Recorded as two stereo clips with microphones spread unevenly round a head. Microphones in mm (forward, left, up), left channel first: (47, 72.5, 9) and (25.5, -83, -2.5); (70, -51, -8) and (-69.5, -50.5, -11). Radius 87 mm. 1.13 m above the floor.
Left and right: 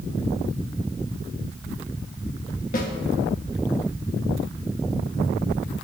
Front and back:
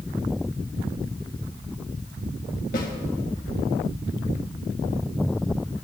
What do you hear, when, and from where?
2.7 s a snare drum: 45° left, 1.5 m